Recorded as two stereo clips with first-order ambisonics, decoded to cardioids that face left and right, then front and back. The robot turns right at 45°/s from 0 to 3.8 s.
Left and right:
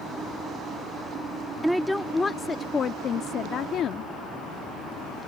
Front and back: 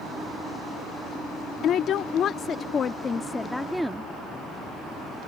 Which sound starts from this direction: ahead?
A woman speaking, at 1.6 s.